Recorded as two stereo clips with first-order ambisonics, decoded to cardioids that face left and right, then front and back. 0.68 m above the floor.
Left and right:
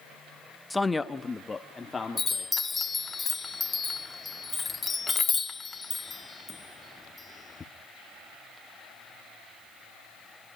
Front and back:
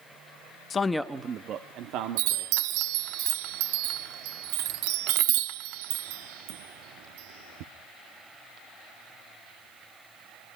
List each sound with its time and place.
0.7 s a man speaking: 5° left, 0.7 m; by 2.7 s 165° left, 1.7 m
2.2 s a chime: 165° left, 0.7 m